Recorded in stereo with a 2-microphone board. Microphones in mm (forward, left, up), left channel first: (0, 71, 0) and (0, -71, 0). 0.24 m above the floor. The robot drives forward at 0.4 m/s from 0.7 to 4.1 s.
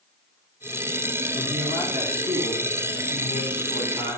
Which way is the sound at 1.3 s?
30° right (ahead or behind).